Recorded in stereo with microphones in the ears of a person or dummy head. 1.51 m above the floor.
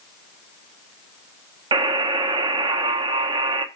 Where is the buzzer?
25° right (ahead or behind), 0.9 m.